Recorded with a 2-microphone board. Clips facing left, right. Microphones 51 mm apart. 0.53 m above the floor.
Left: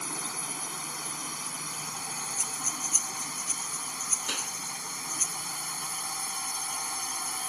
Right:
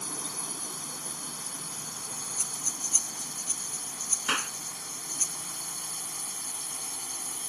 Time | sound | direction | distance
0.0 | a drone | 75° left (ahead or behind) | ?
2.4 | breathing | 25° left (ahead or behind) | ?
4.3 | a clap | 50° right (ahead or behind) | ?